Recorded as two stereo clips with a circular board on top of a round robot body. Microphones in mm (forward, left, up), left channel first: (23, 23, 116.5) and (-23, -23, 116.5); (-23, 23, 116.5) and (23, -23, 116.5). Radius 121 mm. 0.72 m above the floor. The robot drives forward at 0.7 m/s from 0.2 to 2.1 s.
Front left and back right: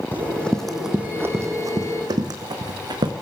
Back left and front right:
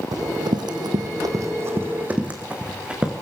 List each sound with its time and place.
0.1 s running footsteps: 15° right, 2.5 m; by 3.1 s 120° right, 3.5 m